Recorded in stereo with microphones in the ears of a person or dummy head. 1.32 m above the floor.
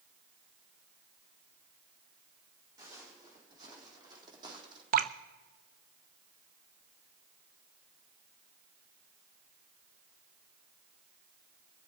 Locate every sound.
2.8 s footsteps: 25° right (ahead or behind), 4.5 m; by 4.8 s 30° right (ahead or behind), 3.5 m
4.9 s dripping: 50° right (ahead or behind), 0.5 m